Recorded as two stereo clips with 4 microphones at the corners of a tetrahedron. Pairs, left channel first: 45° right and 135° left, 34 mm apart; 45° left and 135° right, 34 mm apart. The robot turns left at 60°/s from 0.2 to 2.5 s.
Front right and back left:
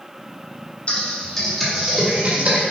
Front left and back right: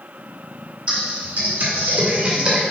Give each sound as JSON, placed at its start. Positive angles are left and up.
{"t": 0.9, "sound": "typing on a keyboard", "azimuth_deg": -85, "distance_m": 2.0}